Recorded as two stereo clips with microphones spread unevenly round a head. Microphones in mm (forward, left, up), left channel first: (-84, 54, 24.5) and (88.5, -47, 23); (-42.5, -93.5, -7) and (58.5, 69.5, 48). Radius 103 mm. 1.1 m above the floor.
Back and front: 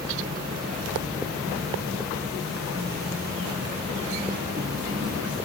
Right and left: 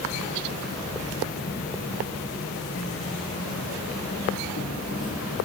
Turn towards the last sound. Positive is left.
turn(degrees=-105)